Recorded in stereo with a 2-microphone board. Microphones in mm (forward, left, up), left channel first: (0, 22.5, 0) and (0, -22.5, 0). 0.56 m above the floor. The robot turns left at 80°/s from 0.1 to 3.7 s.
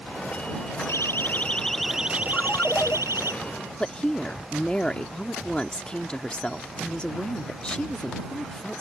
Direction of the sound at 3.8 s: 20° left (ahead or behind).